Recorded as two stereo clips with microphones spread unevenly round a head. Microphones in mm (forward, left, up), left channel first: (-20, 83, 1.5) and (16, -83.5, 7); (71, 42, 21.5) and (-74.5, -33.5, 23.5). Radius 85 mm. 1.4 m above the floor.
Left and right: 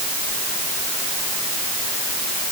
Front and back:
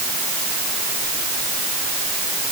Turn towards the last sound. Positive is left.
No sound to turn to.